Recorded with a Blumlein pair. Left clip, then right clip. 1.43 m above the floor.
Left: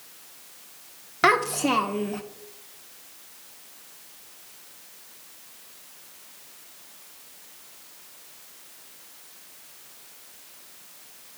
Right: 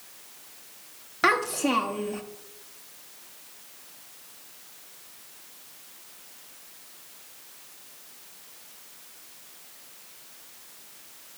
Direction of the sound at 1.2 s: 10° left.